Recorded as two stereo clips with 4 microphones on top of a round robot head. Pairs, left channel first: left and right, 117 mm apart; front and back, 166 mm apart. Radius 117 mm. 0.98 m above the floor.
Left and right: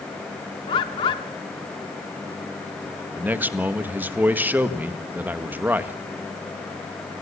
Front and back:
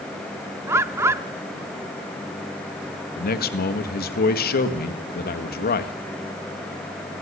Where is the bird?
120° left, 0.5 m.